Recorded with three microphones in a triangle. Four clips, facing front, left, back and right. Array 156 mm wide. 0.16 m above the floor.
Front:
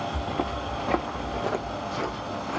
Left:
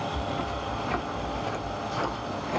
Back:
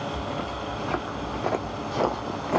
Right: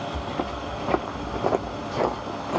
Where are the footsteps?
55° right, 1.4 m; by 2.6 s 160° right, 0.8 m.